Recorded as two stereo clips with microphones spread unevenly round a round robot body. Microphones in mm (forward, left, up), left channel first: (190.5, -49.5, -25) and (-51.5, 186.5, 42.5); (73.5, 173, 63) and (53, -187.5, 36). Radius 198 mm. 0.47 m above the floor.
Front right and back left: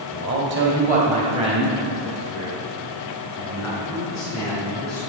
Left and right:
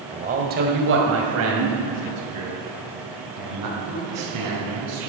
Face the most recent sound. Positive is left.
turn(degrees=-130)